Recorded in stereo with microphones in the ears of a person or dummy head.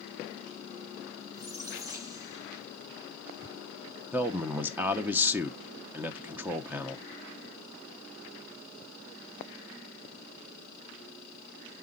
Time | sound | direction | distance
1.3 | a squeak | 25° right (ahead or behind) | 2 m
4.1 | a man speaking | 10° right (ahead or behind) | 0.7 m